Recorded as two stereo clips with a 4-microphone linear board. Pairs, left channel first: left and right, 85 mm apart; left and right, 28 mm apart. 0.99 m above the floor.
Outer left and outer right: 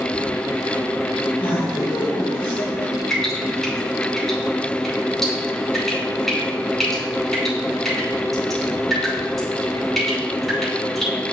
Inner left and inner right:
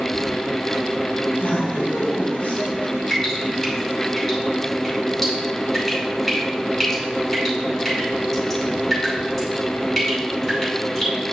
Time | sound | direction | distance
1.3 | laughter | 75° left (ahead or behind) | 4 m
3.1 | dripping | 5° left (ahead or behind) | 4 m